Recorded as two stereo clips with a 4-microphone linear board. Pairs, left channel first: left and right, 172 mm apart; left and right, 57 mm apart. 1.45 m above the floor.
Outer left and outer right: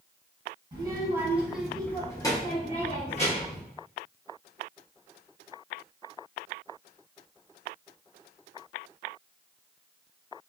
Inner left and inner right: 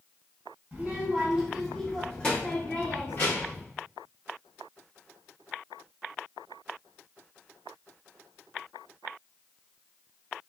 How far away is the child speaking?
About 0.9 m.